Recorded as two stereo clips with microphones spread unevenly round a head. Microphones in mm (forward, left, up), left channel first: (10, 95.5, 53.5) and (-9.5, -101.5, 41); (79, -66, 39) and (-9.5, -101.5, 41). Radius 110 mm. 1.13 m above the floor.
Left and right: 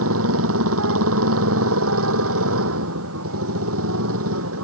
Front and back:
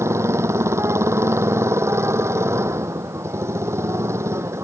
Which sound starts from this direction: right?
A motorcycle, at 0.0 s.